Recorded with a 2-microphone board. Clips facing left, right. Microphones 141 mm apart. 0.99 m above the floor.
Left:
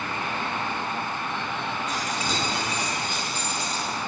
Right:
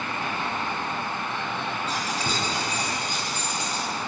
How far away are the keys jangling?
About 6 m.